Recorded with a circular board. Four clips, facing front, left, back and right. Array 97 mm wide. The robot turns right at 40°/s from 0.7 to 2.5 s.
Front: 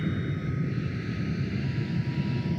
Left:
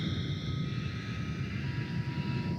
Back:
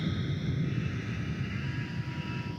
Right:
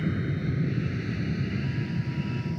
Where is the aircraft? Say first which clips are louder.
Right 7 dB, front 3 dB; 60° right; by 2.6 s 20° right.